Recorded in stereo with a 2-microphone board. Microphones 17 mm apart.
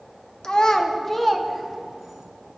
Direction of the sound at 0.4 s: 50° left (ahead or behind).